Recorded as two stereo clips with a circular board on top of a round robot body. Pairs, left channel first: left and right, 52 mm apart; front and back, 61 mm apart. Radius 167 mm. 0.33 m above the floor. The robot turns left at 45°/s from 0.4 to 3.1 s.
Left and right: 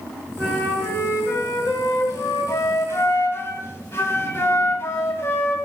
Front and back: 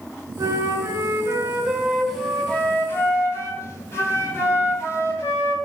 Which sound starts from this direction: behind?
A flute, at 0.4 s.